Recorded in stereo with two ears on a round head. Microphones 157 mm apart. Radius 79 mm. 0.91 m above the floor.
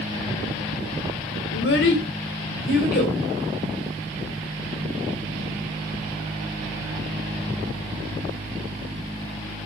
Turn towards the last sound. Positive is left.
turn(degrees=60)  # may be behind; listen again after turning